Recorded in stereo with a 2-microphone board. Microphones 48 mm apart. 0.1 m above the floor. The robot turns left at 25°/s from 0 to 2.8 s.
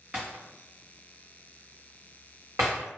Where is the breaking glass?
20° right (ahead or behind), 1.2 m; by 2.9 s 85° right, 1.2 m.